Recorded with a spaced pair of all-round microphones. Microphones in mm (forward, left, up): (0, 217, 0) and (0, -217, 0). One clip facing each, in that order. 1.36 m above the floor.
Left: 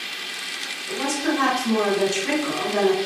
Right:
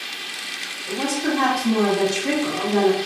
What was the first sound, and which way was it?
A woman speaking, 55° right (ahead or behind).